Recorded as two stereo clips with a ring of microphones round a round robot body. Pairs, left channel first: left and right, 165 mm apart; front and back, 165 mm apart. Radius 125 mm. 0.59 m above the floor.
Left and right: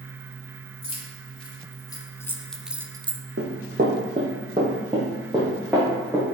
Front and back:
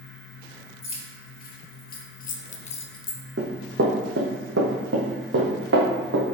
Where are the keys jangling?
35° left, 2 m; by 3.2 s 70° right, 0.7 m.